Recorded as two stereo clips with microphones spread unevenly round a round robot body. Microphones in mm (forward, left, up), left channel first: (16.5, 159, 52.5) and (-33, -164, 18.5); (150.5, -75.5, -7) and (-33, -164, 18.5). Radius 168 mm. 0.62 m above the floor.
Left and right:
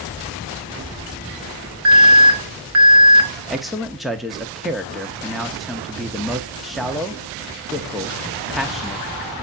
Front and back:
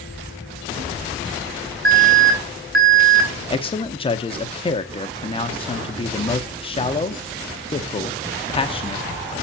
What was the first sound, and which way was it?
An alarm, 120° right.